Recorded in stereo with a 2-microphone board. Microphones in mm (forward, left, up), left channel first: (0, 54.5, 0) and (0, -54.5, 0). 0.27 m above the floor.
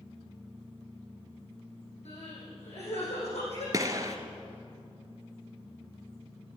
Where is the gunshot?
35° right (ahead or behind), 1.4 m.